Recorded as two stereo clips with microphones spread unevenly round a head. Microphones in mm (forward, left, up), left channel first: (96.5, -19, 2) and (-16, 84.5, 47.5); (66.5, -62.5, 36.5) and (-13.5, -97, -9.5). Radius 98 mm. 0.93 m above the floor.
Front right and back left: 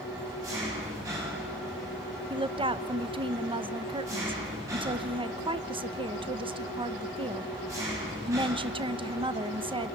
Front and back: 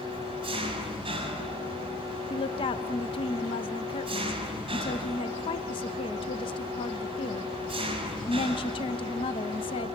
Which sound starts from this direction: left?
A woman speaking, at 2.3 s.